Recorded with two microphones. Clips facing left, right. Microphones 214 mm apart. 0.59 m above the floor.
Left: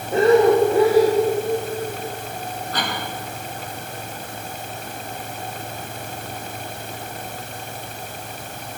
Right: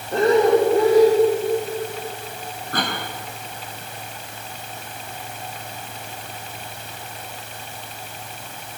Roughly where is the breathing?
Centre.